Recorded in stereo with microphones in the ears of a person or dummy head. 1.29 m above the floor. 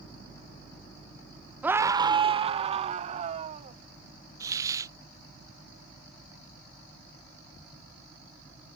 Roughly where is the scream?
Centre.